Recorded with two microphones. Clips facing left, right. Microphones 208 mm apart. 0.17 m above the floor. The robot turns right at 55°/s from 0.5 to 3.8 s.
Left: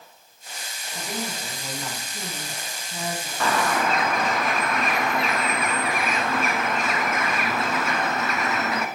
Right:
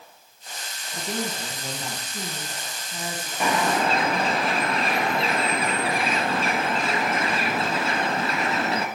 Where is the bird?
15° right (ahead or behind), 0.9 m; by 8.9 s 30° right (ahead or behind), 0.9 m.